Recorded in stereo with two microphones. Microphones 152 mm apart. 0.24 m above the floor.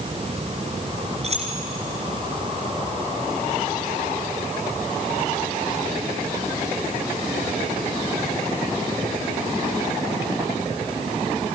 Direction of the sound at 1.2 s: 45° right (ahead or behind).